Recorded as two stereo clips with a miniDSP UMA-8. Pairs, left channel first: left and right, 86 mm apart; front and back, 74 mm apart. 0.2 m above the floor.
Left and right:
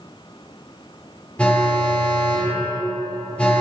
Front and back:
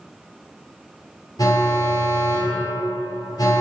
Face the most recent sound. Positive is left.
turn(degrees=15)